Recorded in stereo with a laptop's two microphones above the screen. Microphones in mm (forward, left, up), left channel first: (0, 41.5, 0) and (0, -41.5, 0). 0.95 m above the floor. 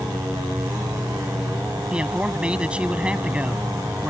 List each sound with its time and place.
0.0 s an insect: 50° right (ahead or behind)
1.9 s a man speaking: 15° right (ahead or behind)